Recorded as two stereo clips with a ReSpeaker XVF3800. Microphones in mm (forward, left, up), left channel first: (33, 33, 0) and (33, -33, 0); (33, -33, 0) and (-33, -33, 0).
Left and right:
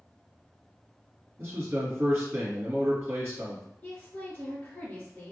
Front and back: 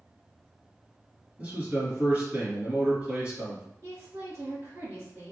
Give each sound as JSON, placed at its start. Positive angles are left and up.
{"t": 1.4, "sound": "a man speaking", "azimuth_deg": -125, "distance_m": 1.9}
{"t": 3.8, "sound": "a woman speaking", "azimuth_deg": 150, "distance_m": 1.8}